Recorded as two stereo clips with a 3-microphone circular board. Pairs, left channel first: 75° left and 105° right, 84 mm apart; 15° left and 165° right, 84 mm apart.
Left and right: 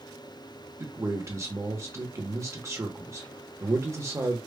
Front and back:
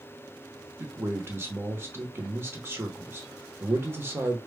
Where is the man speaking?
125° right, 1.0 m.